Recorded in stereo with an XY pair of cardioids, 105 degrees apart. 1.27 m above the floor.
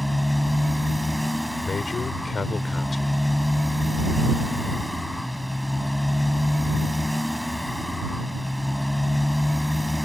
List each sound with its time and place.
0.0 s a motorcycle: 5° left
1.6 s a man speaking: 35° left